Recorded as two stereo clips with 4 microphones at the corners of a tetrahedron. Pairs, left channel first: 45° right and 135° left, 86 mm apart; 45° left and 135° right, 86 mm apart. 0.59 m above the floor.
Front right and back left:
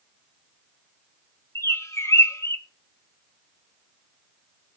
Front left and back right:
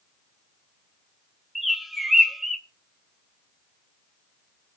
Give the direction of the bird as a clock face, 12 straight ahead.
2 o'clock.